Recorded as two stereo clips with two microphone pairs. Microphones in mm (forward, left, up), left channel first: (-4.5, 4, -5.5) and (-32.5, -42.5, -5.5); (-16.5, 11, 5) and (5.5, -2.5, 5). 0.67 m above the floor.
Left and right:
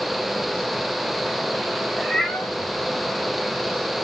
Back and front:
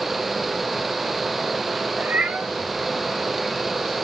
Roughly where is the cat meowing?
Ahead right.